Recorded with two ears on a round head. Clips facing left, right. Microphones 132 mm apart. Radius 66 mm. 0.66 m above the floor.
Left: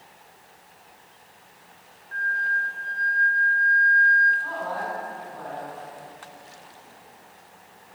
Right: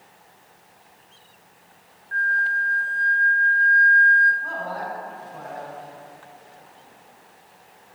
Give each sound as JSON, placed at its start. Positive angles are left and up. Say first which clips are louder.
{"t": 2.1, "sound": "a flute", "louder": "right 3 dB", "side_deg": -65, "distance_m": 1.8}
{"t": 4.4, "sound": "a man speaking", "louder": "even", "side_deg": -25, "distance_m": 6.5}